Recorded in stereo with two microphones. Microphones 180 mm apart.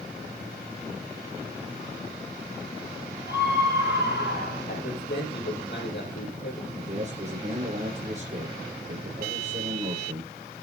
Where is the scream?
75° left (ahead or behind), 6.5 m.